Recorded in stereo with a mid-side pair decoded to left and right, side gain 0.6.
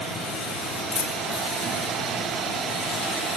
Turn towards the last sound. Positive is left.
turn(degrees=20)